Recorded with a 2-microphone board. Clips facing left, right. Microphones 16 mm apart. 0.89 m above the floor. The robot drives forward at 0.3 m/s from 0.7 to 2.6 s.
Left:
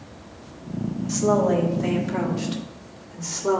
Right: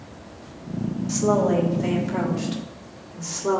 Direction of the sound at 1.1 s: 10° right (ahead or behind).